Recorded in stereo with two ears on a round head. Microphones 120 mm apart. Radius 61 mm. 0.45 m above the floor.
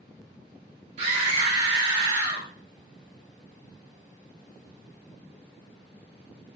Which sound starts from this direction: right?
A scream, at 1.0 s.